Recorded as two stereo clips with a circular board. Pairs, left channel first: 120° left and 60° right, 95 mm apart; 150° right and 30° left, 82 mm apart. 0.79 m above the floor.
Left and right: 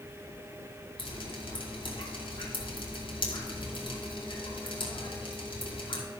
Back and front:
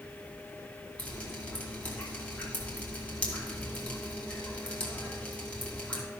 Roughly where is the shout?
I don't hear a shout.